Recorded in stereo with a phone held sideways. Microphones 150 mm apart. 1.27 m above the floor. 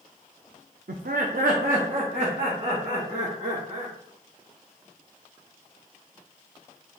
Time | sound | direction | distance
0.9 | laughter | 75° right (ahead or behind) | 0.5 m